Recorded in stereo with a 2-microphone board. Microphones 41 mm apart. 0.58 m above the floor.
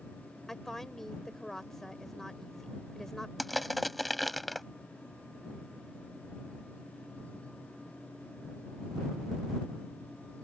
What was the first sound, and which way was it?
A woman speaking, 10° left (ahead or behind).